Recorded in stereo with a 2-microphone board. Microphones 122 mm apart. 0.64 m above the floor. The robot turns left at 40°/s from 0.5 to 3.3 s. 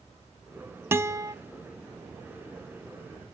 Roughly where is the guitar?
Centre.